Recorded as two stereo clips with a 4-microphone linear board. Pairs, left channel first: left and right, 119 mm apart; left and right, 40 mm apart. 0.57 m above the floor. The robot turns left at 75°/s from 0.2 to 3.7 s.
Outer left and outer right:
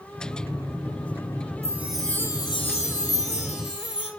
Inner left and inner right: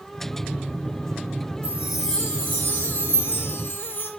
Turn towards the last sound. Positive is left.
turn(degrees=50)